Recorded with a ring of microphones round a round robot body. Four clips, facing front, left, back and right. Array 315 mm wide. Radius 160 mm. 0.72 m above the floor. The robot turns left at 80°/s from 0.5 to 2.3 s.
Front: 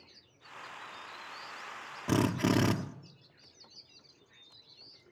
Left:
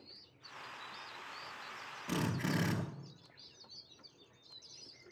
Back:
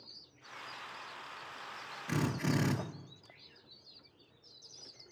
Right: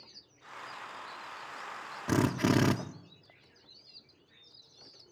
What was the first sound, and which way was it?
A drill, 35° right.